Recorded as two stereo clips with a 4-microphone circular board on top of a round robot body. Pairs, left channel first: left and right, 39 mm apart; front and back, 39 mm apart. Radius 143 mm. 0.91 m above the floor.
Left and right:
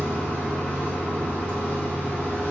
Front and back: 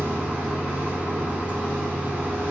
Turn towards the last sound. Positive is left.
turn(degrees=130)